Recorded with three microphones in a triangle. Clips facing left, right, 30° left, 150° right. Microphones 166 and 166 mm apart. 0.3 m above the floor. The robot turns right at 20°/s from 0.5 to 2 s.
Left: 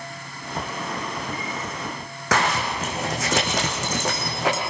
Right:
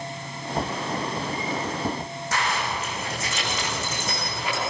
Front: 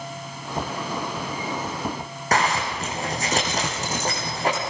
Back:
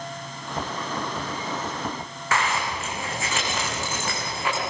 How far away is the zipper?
About 5 m.